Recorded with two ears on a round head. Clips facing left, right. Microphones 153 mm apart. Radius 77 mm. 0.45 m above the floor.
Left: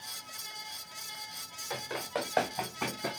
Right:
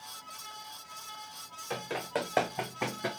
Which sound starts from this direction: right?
Running footsteps, at 1.7 s.